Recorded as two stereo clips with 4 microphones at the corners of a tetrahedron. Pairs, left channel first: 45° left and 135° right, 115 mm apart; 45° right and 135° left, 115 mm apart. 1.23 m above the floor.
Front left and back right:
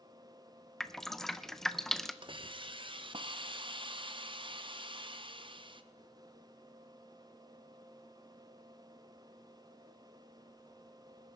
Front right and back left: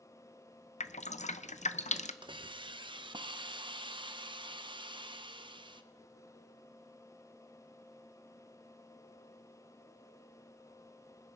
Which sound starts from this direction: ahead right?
Dripping, at 0.8 s.